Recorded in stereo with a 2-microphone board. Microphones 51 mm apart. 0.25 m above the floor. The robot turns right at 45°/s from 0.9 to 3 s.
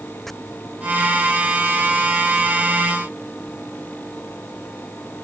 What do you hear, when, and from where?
0.3 s chopping: 5° left (ahead or behind)